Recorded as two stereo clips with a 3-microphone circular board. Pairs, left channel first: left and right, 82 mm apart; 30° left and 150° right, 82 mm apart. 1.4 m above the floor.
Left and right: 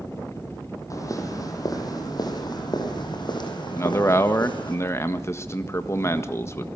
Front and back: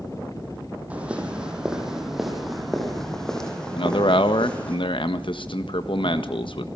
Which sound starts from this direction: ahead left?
A man speaking, at 3.8 s.